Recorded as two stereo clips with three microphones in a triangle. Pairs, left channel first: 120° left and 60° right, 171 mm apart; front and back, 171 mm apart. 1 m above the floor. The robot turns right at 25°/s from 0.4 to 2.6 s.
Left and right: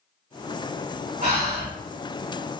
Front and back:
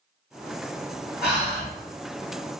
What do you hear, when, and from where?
1.2 s breathing: 100° right, 1.5 m; by 1.7 s 85° right, 1.5 m